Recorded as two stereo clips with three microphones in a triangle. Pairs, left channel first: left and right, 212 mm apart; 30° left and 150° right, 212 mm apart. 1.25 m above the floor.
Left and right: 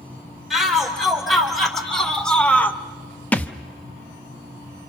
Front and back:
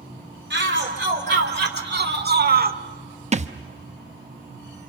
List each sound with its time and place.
0.5 s a shout: straight behind, 4 m; by 2.8 s 170° left, 0.9 m
3.3 s a thud: 170° left, 0.7 m